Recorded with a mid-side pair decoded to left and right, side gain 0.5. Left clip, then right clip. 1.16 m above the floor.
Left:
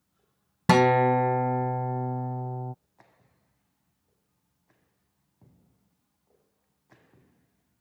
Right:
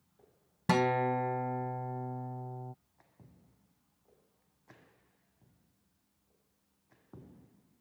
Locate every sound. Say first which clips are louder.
0.7 s a guitar: left 9 dB; 50° left